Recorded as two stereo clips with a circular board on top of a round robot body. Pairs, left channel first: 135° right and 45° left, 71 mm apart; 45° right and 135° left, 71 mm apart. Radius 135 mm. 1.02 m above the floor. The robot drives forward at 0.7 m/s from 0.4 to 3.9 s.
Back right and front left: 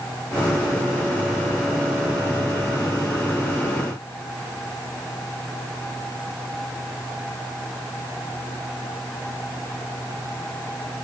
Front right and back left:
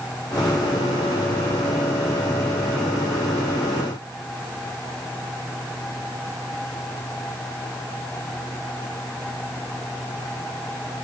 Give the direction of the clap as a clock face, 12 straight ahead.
No clap in this recording.